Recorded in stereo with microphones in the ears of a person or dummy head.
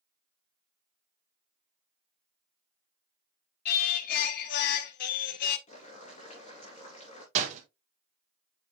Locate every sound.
3.6 s singing: 60° left (ahead or behind), 0.8 m
5.7 s boiling: 40° left (ahead or behind), 3 m
7.3 s a door slam: 45° right (ahead or behind), 1.6 m